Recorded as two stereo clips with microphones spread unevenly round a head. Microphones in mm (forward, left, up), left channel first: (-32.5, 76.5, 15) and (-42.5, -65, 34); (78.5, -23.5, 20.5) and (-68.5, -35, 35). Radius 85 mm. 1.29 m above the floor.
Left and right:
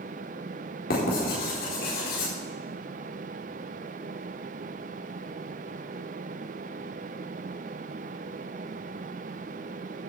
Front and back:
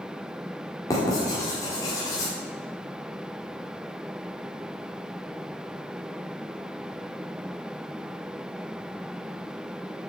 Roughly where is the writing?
Left.